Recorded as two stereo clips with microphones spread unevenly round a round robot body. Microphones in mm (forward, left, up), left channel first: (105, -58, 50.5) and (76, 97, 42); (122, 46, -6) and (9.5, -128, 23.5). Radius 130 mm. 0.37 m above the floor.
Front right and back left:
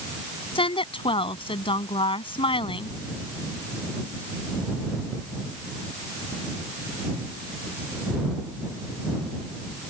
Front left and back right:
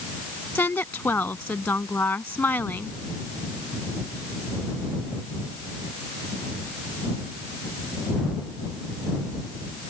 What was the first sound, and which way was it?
A woman speaking, 25° right.